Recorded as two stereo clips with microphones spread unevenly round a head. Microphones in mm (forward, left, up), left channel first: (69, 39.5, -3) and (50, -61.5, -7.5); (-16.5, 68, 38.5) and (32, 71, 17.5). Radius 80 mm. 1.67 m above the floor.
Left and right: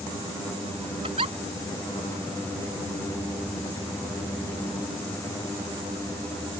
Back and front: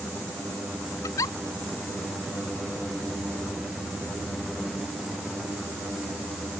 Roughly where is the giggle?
Behind.